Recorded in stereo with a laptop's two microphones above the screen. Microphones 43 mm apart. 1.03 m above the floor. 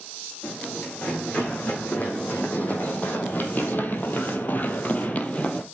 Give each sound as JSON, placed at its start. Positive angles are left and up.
{"t": 0.4, "sound": "running footsteps", "side_deg": 25, "distance_m": 4.0}